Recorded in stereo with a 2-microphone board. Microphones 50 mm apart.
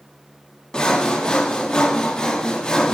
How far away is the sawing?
About 0.5 m.